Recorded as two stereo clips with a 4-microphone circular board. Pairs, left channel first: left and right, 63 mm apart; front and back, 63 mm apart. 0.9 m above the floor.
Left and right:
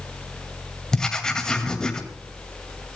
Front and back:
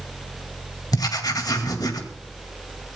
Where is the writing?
10° left, 2 m.